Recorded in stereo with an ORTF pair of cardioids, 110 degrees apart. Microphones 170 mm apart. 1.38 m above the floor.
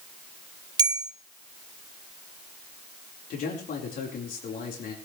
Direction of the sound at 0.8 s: 25° right.